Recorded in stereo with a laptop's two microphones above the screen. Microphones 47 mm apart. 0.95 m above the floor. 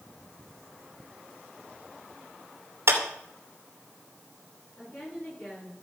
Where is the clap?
70° right (ahead or behind), 2.5 m.